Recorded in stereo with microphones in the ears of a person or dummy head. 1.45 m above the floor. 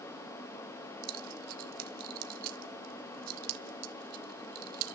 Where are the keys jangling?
55° right (ahead or behind), 1.7 m.